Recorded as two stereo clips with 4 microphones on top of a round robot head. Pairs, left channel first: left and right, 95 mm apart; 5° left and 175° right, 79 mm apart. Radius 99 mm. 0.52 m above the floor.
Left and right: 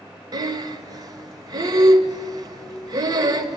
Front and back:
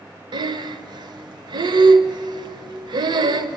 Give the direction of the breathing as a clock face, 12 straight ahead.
5 o'clock.